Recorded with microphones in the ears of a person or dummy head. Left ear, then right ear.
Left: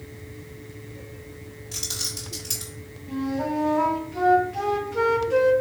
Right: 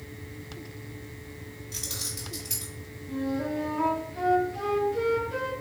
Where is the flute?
80° left, 1.0 m.